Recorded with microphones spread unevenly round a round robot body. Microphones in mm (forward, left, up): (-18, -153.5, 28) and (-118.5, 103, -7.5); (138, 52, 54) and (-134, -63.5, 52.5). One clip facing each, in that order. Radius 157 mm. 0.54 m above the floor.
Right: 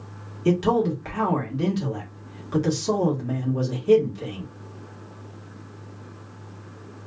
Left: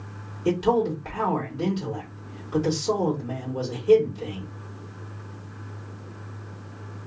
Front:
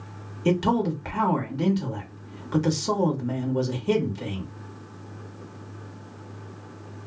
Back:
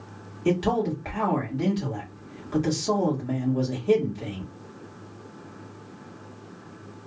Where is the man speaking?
20° right, 1.3 m.